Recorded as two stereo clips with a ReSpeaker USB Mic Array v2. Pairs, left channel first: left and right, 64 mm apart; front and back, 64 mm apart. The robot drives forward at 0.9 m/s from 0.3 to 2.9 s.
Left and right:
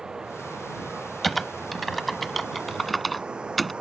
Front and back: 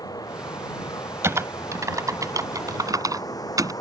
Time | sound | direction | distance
0.0 | running water | 10° right | ?
1.2 | typing on a keyboard | straight behind | ?